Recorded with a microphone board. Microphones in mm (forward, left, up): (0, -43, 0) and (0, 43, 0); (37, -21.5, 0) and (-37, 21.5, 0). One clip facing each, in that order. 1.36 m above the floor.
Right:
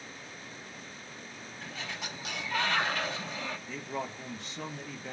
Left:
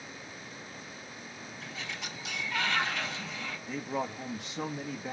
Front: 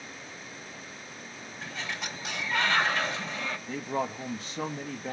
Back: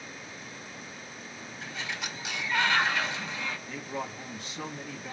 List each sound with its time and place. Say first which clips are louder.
1.6 s a sliding door: right 1 dB, front 1 dB; 75° right, 3 m
3.7 s a man speaking: left 8 dB, front 5 dB; 20° left, 0.6 m